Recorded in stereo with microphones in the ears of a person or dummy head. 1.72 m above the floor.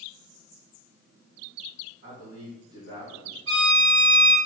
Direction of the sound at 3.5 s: 75° right (ahead or behind).